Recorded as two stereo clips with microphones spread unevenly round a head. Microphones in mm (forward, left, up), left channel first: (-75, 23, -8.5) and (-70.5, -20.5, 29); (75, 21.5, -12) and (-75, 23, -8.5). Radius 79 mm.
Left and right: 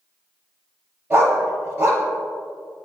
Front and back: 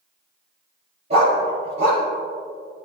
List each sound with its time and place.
1.1 s a dog barking: 130° right, 5 m